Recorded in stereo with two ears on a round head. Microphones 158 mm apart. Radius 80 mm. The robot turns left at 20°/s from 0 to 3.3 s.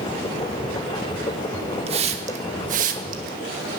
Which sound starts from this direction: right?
A hiss, at 1.9 s.